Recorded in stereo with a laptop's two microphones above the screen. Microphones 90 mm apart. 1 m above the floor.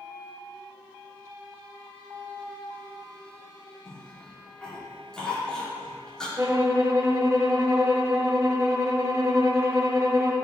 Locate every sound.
3.9 s a cough: 5° left (ahead or behind), 2 m
6.4 s a violin: 30° right (ahead or behind), 0.9 m